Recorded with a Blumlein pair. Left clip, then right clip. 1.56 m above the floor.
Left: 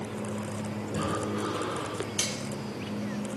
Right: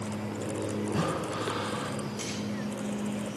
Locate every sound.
0.9 s breathing: 20° right, 9.5 m
2.2 s cutlery clinking: 35° left, 3.5 m